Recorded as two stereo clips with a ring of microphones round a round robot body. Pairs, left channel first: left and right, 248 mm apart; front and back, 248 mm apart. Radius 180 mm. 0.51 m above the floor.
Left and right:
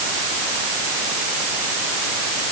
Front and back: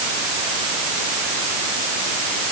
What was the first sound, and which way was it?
Only background noise.